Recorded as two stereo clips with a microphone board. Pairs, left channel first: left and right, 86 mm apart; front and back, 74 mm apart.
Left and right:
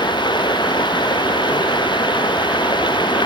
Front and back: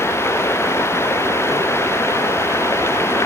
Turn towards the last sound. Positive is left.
turn(degrees=55)